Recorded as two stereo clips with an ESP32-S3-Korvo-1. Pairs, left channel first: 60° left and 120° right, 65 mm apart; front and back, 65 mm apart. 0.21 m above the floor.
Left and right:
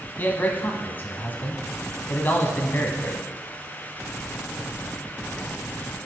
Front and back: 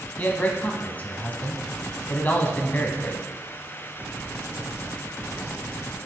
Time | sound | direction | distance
0.2 | a man speaking | 40° left | 1.1 m